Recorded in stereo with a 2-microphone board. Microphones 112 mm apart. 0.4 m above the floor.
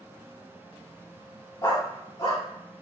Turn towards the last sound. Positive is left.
turn(degrees=40)  # may be behind; listen again after turning